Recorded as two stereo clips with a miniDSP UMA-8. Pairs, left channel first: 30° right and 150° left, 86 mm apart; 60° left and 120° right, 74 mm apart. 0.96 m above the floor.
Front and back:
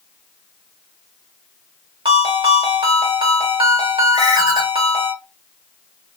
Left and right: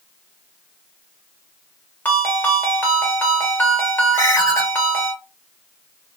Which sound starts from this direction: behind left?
A ringtone, at 2.0 s.